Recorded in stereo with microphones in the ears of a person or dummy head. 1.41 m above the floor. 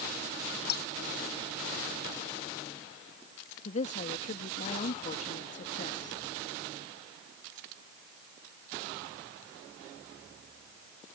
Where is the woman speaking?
40° left (ahead or behind).